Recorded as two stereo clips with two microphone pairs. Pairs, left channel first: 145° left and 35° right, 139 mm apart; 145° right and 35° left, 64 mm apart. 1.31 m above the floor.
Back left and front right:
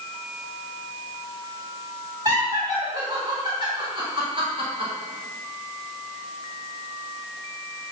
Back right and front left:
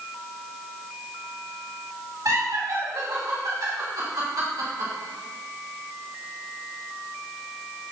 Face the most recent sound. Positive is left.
turn(degrees=15)